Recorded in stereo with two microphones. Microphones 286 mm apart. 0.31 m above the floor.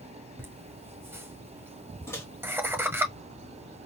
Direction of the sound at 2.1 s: 10° left (ahead or behind).